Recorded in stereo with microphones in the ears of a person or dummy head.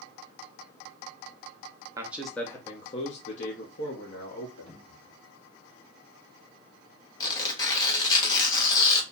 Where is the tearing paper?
25° left (ahead or behind), 1.0 m.